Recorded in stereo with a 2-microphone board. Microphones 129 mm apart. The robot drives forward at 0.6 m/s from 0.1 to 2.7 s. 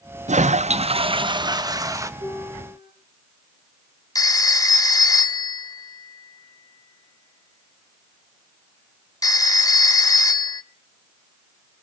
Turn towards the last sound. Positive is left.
turn(degrees=30)  # may be behind; listen again after turning